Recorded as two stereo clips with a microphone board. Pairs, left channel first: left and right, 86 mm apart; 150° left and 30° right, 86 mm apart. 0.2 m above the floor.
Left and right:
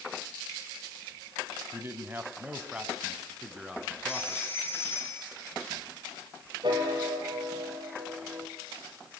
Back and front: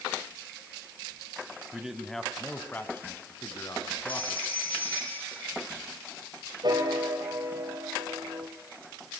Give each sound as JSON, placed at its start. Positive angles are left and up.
{"t": 1.7, "sound": "a man speaking", "azimuth_deg": -100, "distance_m": 1.3}
{"t": 4.1, "sound": "a phone ringing", "azimuth_deg": 155, "distance_m": 5.5}
{"t": 6.6, "sound": "a piano", "azimuth_deg": -65, "distance_m": 3.5}